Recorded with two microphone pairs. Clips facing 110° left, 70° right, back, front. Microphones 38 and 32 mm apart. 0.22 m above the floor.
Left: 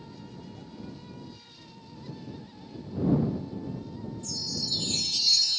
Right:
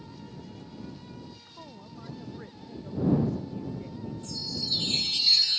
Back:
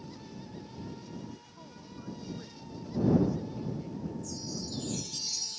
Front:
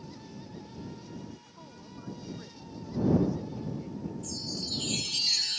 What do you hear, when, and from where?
1.5 s a woman speaking: 85° right
4.2 s a chime: 10° right